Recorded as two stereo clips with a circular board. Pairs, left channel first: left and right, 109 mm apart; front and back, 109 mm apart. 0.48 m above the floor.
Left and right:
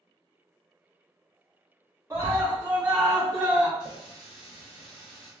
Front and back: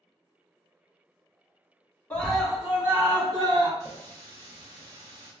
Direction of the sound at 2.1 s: 65° right.